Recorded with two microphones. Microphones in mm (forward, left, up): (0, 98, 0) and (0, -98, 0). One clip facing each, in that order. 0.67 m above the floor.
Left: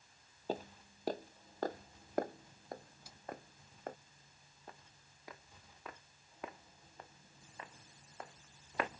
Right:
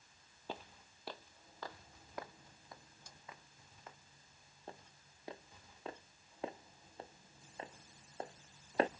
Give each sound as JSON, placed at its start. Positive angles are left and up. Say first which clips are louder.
{"t": 0.5, "sound": "footsteps", "louder": "left 8 dB", "side_deg": 40}
{"t": 3.1, "sound": "a snare drum", "louder": "left 1 dB", "side_deg": 5}
{"t": 4.7, "sound": "footsteps", "louder": "right 4 dB", "side_deg": -30}